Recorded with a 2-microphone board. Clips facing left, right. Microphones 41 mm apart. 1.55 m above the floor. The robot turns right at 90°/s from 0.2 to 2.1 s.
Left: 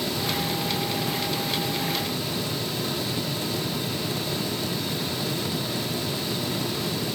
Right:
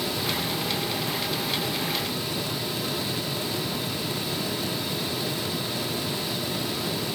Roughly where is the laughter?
No laughter in this recording.